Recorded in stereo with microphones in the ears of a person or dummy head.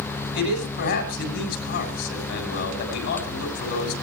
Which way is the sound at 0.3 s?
75° left (ahead or behind).